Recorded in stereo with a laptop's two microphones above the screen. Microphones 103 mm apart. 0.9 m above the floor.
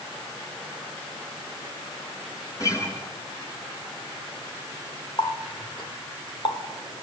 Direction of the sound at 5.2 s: 50° left (ahead or behind).